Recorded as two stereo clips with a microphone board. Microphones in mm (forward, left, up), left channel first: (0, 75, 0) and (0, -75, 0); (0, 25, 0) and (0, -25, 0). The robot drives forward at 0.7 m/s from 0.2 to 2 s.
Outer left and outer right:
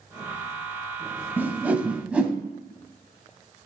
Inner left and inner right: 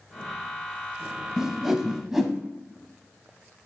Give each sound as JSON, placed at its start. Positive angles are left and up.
{"t": 1.4, "sound": "a whoosh", "side_deg": -15, "distance_m": 0.7}